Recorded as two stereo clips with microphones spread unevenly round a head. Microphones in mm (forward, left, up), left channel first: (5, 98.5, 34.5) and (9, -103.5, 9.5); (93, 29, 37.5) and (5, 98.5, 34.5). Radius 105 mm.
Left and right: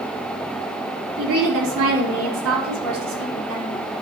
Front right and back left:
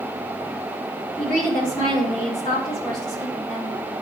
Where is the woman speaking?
105° right, 4 m.